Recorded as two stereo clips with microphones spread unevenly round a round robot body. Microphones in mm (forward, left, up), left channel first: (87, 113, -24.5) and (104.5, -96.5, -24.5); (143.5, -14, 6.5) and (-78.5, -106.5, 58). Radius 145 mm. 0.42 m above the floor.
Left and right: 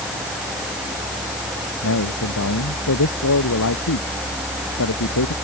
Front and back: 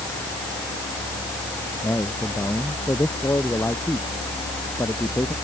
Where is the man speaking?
105° left.